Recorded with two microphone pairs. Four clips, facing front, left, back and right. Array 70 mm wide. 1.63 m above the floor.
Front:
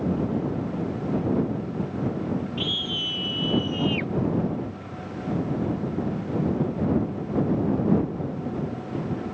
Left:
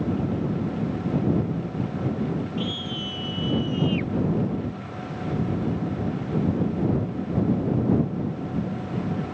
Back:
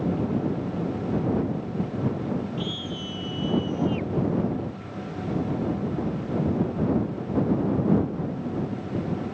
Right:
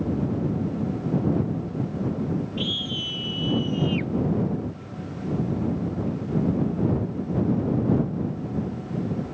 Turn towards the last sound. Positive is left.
turn(degrees=5)